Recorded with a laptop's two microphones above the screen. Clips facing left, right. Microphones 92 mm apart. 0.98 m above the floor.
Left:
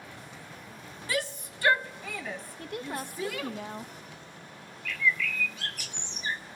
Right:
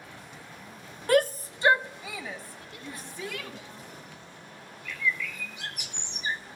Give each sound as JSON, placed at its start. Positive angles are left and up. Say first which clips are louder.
{"t": 1.1, "sound": "a shout", "louder": "right 10 dB", "side_deg": -55, "distance_m": 0.6}
{"t": 2.6, "sound": "a woman speaking", "louder": "left 7 dB", "side_deg": 55, "distance_m": 1.1}
{"t": 4.8, "sound": "a bird", "louder": "left 2 dB", "side_deg": -20, "distance_m": 1.0}